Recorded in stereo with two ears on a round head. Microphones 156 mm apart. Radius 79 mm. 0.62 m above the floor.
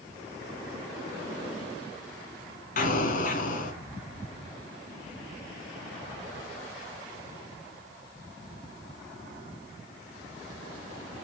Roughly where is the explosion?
Left.